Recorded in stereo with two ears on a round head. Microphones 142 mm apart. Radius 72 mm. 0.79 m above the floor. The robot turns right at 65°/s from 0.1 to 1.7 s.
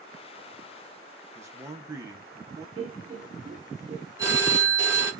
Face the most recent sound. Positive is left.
turn(degrees=-20)  # may be behind; listen again after turning